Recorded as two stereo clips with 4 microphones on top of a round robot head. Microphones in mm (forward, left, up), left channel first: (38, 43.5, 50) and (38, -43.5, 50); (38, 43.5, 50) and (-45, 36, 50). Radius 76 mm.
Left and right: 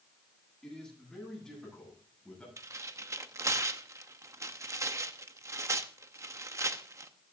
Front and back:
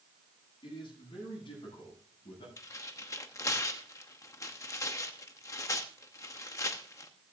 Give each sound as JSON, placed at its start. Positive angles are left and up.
{"t": 0.6, "sound": "a man speaking", "azimuth_deg": 5, "distance_m": 9.0}
{"t": 2.6, "sound": "tearing paper", "azimuth_deg": -40, "distance_m": 0.9}